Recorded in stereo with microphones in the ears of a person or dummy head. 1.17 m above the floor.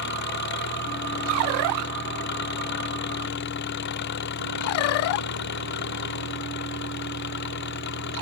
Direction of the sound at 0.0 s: 65° left (ahead or behind).